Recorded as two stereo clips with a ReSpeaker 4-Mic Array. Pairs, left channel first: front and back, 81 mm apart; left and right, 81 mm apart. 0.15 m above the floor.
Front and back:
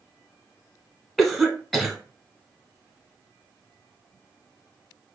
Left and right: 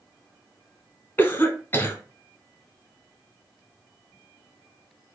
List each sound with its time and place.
1.2 s a cough: 85° left, 1.1 m